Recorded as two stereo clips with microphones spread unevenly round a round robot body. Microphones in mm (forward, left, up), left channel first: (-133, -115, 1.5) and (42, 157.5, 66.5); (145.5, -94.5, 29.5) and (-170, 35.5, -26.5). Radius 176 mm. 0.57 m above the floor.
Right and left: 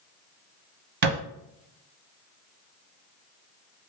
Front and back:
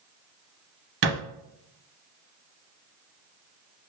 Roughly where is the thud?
Left.